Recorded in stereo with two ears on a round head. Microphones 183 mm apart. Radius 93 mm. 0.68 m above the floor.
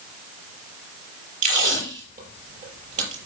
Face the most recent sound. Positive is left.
turn(degrees=-45)  # may be behind; listen again after turning